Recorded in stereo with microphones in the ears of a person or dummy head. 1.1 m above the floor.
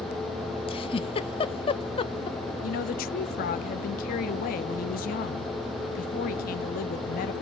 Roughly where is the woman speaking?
Left.